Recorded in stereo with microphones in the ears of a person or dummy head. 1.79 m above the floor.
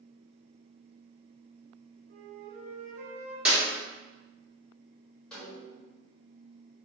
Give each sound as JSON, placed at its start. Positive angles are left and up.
{"t": 2.1, "sound": "a flute", "side_deg": -55, "distance_m": 1.1}
{"t": 3.5, "sound": "a clap", "side_deg": -5, "distance_m": 1.0}
{"t": 5.3, "sound": "a snare drum", "side_deg": 5, "distance_m": 1.1}